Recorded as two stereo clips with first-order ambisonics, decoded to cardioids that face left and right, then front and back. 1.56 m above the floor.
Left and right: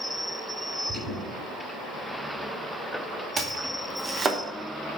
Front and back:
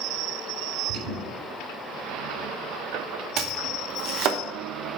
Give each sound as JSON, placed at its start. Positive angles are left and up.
{"t": 0.9, "sound": "an alarm", "azimuth_deg": -165, "distance_m": 4.5}
{"t": 3.4, "sound": "chopping", "azimuth_deg": -155, "distance_m": 0.9}